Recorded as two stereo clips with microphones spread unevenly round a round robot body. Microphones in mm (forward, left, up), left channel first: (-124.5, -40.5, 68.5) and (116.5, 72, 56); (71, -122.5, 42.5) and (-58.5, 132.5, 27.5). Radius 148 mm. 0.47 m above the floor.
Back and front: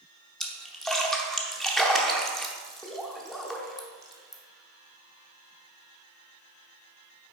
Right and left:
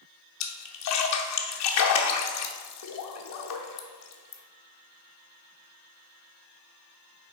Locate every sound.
0.4 s a splash: 65° right, 0.9 m